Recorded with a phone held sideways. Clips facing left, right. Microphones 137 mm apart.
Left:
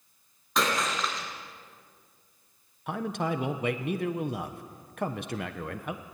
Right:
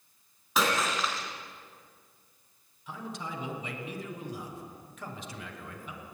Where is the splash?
5° right (ahead or behind), 4 m.